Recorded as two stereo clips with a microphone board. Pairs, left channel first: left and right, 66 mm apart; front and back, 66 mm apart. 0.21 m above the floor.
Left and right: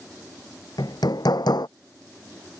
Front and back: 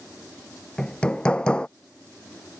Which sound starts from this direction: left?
Hammering, at 0.8 s.